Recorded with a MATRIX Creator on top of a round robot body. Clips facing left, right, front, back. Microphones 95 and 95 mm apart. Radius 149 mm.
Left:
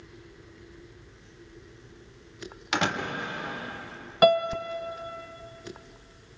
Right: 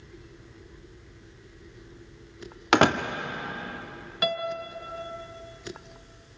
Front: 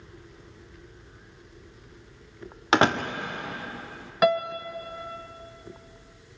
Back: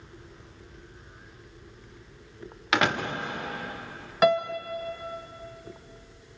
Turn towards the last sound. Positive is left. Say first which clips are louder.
# left 9 dB, even
turn(degrees=85)